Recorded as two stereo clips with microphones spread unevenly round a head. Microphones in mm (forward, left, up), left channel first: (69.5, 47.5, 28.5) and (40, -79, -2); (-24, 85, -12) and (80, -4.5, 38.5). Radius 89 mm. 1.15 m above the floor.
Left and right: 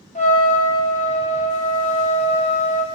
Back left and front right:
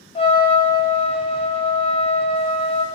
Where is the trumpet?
85° left, 0.9 m.